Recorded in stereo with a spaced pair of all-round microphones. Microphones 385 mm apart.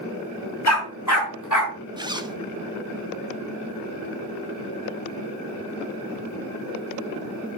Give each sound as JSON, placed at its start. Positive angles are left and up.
{"t": 0.7, "sound": "a dog barking", "side_deg": 40, "distance_m": 5.0}
{"t": 2.0, "sound": "a zipper", "side_deg": -10, "distance_m": 0.8}